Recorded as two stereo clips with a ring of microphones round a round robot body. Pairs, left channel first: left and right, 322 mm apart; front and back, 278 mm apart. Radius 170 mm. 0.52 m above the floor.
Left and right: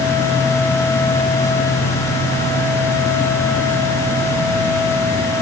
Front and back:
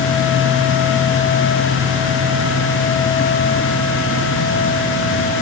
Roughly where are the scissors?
I don't hear scissors.